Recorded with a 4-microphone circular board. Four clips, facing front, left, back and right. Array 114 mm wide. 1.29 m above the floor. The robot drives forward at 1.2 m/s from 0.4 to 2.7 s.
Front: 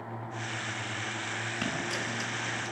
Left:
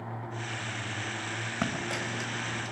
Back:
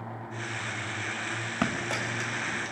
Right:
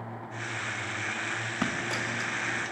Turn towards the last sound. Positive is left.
turn(degrees=175)